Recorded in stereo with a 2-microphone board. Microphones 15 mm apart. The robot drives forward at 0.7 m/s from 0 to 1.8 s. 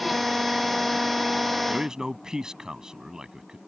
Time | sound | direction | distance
1.7 | a man speaking | 40° right (ahead or behind) | ?